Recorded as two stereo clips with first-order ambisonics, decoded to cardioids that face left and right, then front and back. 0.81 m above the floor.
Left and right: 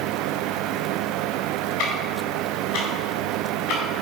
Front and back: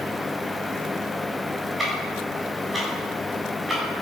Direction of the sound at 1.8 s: 100° left.